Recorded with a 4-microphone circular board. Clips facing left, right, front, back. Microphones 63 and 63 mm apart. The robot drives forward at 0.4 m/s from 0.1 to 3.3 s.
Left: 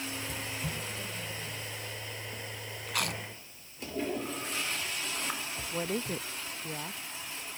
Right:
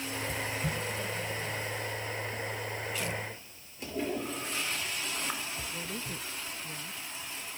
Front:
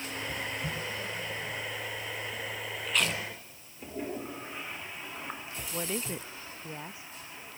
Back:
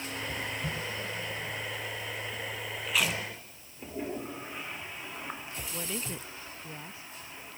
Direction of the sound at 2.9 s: 95° left.